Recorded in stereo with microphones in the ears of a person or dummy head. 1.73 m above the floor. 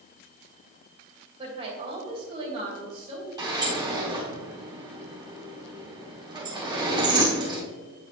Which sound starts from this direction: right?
A woman speaking, at 1.4 s.